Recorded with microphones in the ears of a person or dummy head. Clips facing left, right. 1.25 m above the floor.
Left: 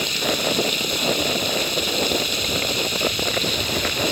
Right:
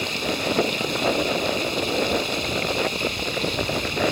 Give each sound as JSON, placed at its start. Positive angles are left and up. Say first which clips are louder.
{"t": 0.0, "sound": "running water", "louder": "left 2 dB", "side_deg": 20}